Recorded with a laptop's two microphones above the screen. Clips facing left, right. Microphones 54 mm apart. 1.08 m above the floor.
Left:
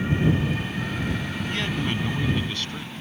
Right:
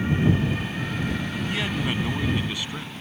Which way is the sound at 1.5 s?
5° right (ahead or behind).